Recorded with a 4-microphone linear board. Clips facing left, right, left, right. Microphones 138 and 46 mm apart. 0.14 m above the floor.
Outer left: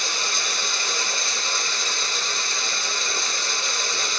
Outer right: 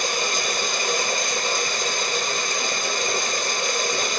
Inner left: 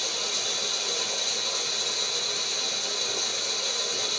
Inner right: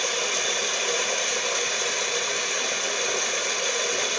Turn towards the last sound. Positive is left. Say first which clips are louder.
# outer right 6 dB, inner right 6 dB
turn(degrees=-50)  # may be behind; listen again after turning